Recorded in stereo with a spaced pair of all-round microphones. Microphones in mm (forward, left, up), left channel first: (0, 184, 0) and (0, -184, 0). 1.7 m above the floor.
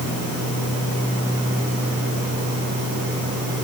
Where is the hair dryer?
No hair dryer in this recording.